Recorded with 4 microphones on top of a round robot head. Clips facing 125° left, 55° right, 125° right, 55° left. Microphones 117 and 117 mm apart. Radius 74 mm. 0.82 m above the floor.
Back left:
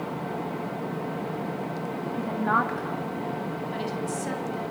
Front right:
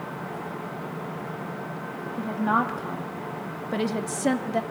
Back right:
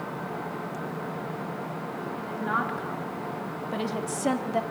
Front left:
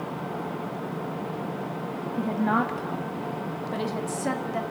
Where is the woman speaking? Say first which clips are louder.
Front right 1 dB, front left 6 dB; 35° left, 1.8 m; by 4.6 s 55° right, 2 m.